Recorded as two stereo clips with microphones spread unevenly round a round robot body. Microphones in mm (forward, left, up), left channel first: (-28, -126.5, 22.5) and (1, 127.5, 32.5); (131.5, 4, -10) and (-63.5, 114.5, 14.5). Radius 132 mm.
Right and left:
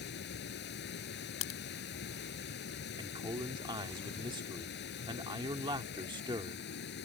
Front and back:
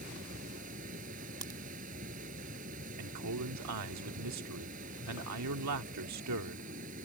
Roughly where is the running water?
Behind right.